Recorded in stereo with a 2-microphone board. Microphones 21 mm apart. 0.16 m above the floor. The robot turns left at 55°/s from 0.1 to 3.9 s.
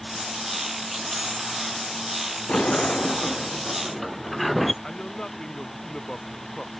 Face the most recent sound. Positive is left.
turn(degrees=30)  # may be behind; listen again after turning